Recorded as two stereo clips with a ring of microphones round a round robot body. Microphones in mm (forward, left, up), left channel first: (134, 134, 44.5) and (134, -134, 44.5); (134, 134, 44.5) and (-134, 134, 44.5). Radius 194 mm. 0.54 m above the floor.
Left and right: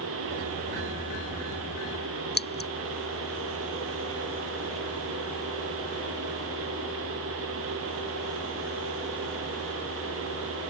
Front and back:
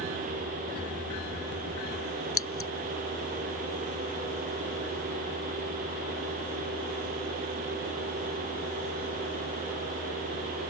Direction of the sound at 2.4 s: 35° left.